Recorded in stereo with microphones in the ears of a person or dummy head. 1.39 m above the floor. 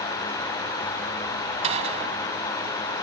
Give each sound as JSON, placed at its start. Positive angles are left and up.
{"t": 1.6, "sound": "a gunshot", "side_deg": -35}